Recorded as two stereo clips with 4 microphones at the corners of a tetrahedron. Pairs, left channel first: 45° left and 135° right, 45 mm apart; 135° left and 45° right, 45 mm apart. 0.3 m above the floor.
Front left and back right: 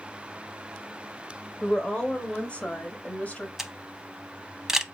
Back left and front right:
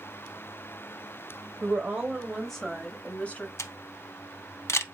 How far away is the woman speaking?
About 1.0 m.